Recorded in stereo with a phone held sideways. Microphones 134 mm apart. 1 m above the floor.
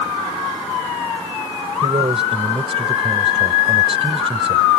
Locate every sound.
1.8 s a man speaking: 50° right (ahead or behind)